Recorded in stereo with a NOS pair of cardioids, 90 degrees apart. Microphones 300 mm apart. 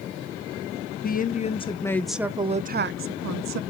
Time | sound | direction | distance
1.0 | a woman speaking | 30° left | 1.4 m